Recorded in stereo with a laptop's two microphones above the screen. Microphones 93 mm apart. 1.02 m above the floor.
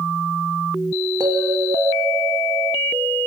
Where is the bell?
45° right (ahead or behind), 3.5 m.